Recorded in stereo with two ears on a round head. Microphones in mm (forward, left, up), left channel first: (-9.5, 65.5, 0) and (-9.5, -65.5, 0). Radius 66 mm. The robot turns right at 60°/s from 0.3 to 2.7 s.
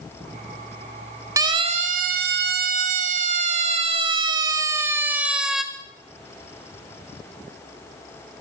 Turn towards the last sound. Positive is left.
turn(degrees=0)  # may be behind; listen again after turning